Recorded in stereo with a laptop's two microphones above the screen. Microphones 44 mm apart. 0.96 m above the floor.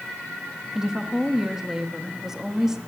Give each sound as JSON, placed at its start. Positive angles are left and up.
{"t": 0.8, "sound": "a woman speaking", "side_deg": -10, "distance_m": 1.1}